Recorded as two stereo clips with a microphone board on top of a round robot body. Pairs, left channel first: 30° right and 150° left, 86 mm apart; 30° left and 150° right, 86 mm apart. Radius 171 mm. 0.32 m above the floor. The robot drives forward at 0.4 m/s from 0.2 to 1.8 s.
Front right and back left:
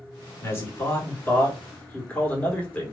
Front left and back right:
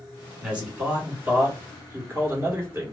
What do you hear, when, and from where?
0.4 s a man speaking: 75° right, 2.0 m; by 2.9 s 100° right, 1.9 m